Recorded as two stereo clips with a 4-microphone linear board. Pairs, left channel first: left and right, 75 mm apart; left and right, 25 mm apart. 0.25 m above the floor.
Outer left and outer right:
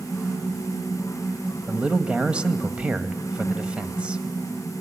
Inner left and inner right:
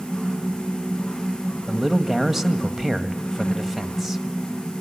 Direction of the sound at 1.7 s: 15° right (ahead or behind).